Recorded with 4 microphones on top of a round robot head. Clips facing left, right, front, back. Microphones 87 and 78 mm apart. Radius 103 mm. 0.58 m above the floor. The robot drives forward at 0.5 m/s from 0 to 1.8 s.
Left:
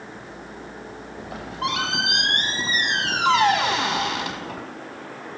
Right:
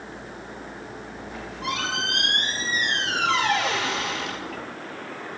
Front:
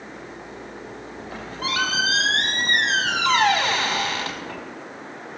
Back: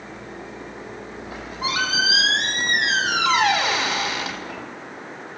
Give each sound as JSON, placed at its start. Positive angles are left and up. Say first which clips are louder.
{"t": 1.2, "sound": "a squeak", "louder": "left 8 dB, back 1 dB", "azimuth_deg": 100, "distance_m": 4.5}